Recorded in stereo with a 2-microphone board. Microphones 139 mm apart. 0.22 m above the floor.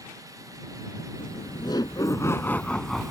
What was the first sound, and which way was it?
Laughter, 40° left (ahead or behind).